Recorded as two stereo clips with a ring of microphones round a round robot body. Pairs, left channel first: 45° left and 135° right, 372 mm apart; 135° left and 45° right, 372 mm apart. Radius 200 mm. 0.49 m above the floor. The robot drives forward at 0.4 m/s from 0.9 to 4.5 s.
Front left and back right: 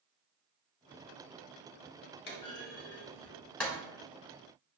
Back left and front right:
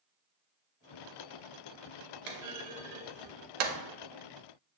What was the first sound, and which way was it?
A clunk, 20° right.